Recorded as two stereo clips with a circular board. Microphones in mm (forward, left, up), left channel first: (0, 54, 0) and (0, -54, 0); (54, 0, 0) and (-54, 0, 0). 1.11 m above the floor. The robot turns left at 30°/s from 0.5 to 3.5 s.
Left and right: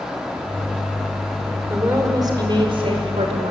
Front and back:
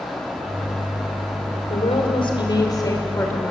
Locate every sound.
1.7 s a woman speaking: 20° right, 5 m; by 3.5 s 75° right, 5 m